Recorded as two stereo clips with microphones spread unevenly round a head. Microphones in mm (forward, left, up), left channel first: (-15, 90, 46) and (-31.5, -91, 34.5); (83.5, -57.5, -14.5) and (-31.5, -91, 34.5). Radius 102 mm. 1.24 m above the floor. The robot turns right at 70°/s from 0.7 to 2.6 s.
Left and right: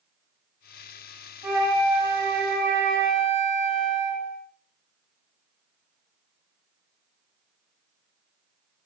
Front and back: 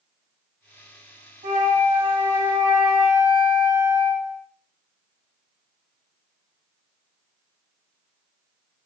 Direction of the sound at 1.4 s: 160° right.